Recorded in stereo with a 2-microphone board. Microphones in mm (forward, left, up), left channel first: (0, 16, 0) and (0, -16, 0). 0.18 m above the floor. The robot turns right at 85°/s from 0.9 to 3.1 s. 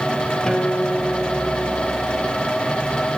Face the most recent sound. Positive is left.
turn(degrees=-10)